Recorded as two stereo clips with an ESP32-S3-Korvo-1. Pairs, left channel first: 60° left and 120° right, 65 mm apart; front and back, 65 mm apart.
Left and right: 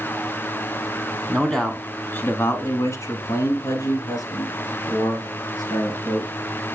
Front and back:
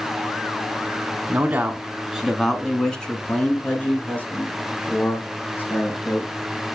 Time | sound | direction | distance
1.3 | a man speaking | 150° left | 1.2 m